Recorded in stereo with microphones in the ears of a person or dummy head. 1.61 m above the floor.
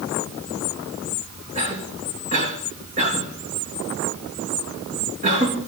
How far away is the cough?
About 3.5 m.